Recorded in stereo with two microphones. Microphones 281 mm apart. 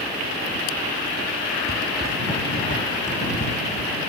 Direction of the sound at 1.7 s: 50° left (ahead or behind).